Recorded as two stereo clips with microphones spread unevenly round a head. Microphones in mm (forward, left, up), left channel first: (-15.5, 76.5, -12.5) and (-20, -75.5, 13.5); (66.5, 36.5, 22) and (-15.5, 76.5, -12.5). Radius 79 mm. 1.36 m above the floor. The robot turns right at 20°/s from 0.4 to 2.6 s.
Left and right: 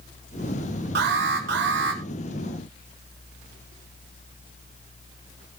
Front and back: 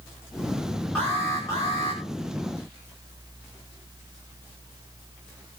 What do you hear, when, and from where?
0.9 s an alarm: 110° right, 5.5 m; by 2.0 s 90° right, 5.5 m